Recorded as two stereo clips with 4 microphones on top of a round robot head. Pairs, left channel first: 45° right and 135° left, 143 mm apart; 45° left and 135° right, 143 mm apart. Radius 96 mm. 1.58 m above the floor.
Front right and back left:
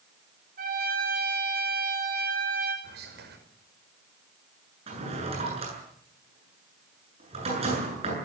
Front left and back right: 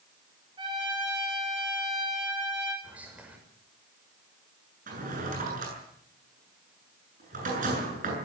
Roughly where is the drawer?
Behind.